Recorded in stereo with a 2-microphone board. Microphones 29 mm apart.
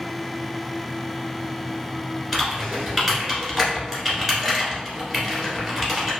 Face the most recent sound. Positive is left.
turn(degrees=10)  # may be behind; listen again after turning